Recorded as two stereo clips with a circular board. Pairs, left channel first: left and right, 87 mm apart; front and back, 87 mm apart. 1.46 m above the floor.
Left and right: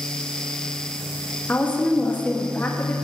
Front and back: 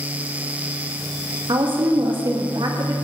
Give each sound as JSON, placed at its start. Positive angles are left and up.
{"t": 1.5, "sound": "a woman speaking", "azimuth_deg": 160, "distance_m": 1.9}